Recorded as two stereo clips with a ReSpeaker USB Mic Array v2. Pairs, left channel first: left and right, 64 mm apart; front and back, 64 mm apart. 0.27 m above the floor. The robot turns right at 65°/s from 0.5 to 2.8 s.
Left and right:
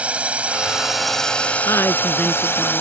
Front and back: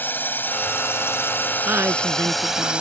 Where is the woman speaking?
120° left; by 2.8 s 165° right.